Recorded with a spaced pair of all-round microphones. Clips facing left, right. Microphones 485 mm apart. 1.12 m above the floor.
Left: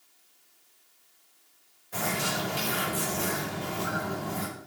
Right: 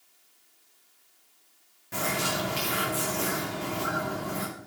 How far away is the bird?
About 2.5 m.